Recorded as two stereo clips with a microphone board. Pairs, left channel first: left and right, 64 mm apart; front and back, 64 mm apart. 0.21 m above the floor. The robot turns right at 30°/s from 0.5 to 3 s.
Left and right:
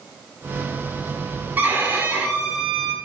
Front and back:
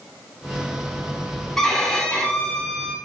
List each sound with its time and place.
1.6 s a violin: 85° right, 0.7 m; by 3.0 s 45° right, 0.7 m